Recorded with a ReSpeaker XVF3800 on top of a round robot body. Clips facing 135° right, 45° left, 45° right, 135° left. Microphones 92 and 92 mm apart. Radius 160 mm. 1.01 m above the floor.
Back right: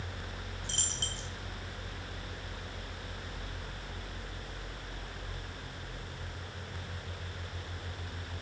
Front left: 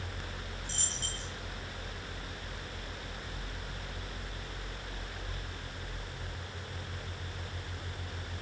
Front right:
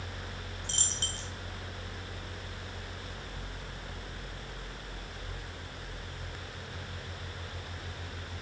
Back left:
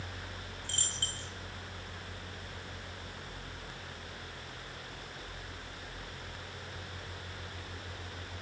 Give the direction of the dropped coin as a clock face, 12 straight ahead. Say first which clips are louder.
Even, front right 2 dB; 4 o'clock.